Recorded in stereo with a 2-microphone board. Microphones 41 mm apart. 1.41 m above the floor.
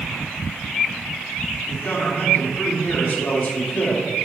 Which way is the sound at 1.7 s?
55° left (ahead or behind).